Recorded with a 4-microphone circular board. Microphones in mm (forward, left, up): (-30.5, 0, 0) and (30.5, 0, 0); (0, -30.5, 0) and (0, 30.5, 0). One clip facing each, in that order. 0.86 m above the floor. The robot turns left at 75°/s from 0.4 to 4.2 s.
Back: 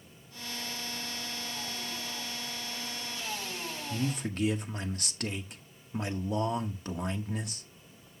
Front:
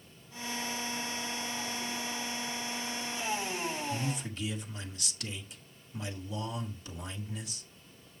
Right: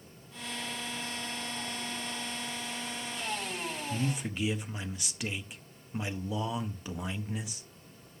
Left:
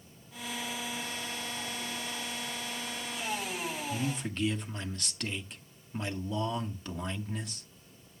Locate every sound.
3.9 s a man speaking: 145° right, 1.1 m; by 7.7 s 170° right, 1.1 m